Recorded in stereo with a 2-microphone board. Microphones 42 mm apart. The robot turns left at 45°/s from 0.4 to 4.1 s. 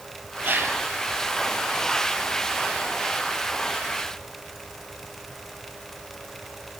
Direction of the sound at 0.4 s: 45° right (ahead or behind).